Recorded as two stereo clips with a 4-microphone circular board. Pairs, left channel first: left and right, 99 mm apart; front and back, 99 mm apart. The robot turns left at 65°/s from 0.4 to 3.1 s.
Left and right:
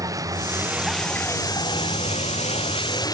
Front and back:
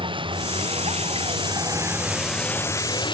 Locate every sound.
0.0 s a vehicle: 145° right; by 3.1 s 40° left